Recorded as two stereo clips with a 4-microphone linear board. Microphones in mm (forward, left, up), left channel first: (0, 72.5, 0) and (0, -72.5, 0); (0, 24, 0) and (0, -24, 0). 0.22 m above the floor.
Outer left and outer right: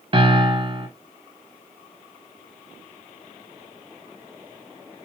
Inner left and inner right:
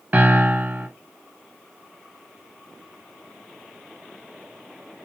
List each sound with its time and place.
0.1 s a piano: 40° right (ahead or behind), 0.7 m